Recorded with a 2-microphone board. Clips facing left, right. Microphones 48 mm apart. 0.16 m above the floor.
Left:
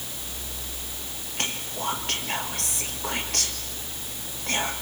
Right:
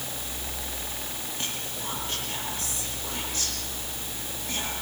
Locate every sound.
1.4 s whispering: 70° left (ahead or behind), 5 m